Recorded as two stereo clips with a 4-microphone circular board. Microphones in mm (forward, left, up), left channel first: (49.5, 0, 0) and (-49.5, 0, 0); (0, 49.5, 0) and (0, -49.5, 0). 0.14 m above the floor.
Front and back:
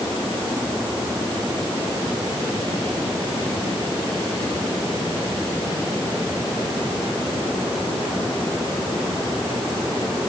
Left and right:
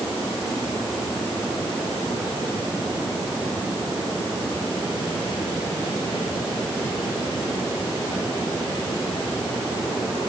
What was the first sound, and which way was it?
Only background noise.